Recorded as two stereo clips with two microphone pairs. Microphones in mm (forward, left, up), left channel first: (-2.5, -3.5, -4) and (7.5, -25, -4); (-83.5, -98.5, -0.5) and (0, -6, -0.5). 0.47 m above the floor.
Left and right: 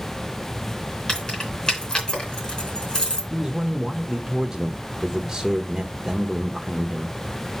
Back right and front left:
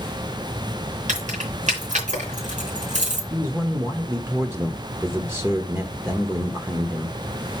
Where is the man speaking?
20° right, 0.8 m.